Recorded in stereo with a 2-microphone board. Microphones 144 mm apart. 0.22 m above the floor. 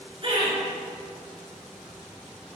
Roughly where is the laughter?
Right.